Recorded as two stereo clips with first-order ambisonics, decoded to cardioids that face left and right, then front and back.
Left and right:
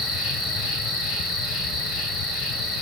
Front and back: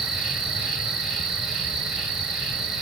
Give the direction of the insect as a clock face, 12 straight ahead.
8 o'clock.